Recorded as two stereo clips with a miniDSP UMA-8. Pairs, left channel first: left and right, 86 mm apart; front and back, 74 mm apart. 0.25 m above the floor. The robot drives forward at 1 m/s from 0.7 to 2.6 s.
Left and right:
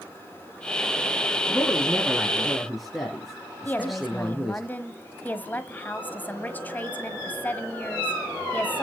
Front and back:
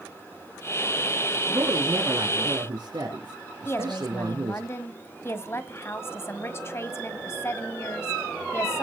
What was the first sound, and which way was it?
A woman speaking, straight behind.